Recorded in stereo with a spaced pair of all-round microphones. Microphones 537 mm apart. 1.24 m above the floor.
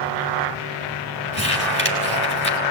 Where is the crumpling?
20° right (ahead or behind), 5.5 m.